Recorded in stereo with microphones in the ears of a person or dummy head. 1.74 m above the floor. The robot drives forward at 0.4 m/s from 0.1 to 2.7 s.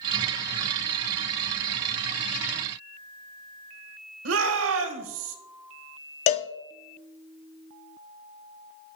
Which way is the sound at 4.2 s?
75° right (ahead or behind).